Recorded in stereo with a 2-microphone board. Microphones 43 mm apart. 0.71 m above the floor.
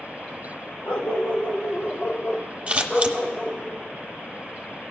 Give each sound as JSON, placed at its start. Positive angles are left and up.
{"t": 0.8, "sound": "a dog barking", "side_deg": 65, "distance_m": 1.4}
{"t": 2.7, "sound": "scissors", "side_deg": -30, "distance_m": 0.8}